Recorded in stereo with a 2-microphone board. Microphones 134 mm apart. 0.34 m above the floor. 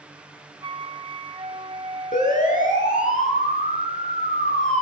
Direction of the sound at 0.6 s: 40° right (ahead or behind).